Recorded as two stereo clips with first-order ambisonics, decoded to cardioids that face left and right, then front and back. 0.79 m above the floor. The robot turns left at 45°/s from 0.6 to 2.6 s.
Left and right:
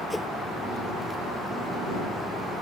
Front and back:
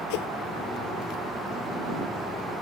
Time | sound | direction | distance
0.1 | a whoosh | 5° left | ?